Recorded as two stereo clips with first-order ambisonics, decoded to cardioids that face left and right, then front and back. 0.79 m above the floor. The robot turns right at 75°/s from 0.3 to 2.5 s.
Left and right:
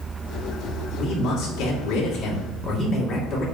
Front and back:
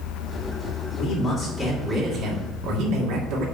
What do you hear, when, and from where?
1.0 s a man speaking: 45° left, 2 m; by 3.5 s 160° left, 2 m